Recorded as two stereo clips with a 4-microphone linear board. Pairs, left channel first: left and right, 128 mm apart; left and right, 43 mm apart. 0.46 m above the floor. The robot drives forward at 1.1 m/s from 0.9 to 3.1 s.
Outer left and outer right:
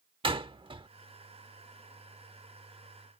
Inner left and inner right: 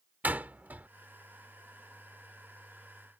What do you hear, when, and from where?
0.2 s a door slam: 45° right (ahead or behind)